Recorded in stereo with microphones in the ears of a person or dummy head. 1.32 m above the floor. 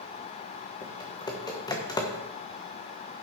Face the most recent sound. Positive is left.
turn(degrees=15)  # may be behind; listen again after turning